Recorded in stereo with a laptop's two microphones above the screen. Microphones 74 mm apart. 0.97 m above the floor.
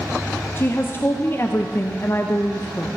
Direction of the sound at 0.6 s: 30° left (ahead or behind).